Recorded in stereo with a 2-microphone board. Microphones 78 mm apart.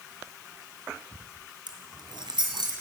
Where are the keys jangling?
75° right (ahead or behind), 3.5 m; by 2.7 s 85° right, 4.5 m.